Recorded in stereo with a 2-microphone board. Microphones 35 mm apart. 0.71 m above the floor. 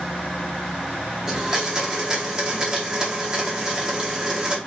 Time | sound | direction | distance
1.3 | a blender | 20° right (ahead or behind) | 0.6 m